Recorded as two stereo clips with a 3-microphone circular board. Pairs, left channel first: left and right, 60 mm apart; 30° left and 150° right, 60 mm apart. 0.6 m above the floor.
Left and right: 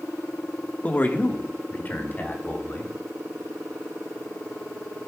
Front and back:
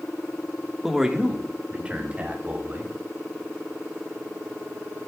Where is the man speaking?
130° left, 1.3 m; by 2.9 s 150° left, 4 m.